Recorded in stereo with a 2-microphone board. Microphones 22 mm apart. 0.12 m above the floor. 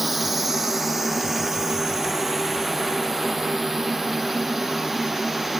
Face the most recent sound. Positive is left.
turn(degrees=-20)  # may be behind; listen again after turning